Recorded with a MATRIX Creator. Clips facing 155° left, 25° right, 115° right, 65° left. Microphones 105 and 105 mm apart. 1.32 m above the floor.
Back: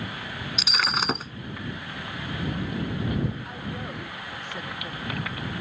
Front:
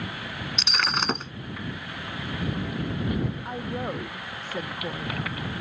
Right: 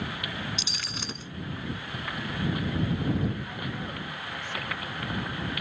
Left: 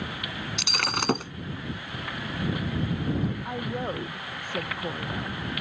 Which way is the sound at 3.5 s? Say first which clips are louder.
Front 4 dB, left 5 dB; 30° left.